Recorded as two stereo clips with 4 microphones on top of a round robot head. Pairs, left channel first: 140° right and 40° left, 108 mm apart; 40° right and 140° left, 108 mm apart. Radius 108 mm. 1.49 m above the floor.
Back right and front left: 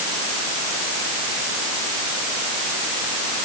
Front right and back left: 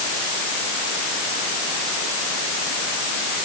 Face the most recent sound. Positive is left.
No sound to turn to.